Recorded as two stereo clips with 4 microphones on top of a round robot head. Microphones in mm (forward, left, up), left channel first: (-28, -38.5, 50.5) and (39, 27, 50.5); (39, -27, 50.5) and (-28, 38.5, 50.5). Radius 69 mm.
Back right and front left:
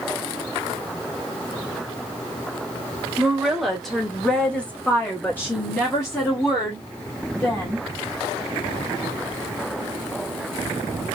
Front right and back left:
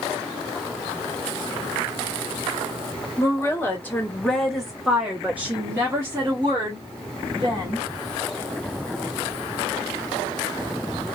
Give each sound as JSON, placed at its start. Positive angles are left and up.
{"t": 3.2, "sound": "a woman speaking", "azimuth_deg": -35, "distance_m": 1.3}